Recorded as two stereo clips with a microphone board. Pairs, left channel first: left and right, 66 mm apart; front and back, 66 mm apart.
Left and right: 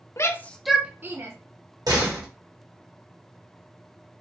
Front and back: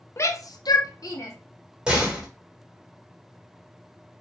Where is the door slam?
100° right, 1.3 m.